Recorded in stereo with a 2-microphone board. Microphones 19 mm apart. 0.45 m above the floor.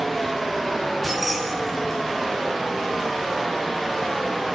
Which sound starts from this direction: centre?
Keys jangling, at 1.0 s.